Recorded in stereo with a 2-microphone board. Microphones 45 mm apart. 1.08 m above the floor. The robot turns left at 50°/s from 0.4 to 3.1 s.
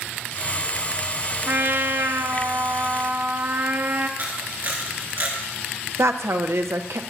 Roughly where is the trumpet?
Ahead right.